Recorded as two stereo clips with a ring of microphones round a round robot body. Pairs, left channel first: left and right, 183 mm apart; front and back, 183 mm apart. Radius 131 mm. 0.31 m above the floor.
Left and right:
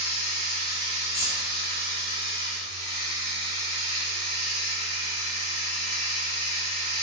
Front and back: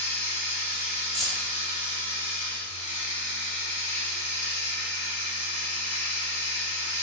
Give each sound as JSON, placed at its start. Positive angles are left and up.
{"t": 0.0, "sound": "running water", "azimuth_deg": -45, "distance_m": 1.6}
{"t": 1.1, "sound": "keys jangling", "azimuth_deg": 90, "distance_m": 0.8}